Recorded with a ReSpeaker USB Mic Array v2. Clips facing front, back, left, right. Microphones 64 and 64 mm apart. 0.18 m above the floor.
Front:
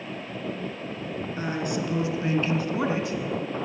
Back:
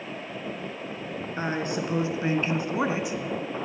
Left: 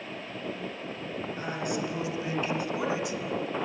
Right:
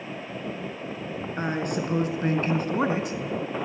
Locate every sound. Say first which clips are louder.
1.4 s a woman speaking: back 1 dB, right 5 dB; 125° right, 2 m; by 3.5 s 105° right, 1.1 m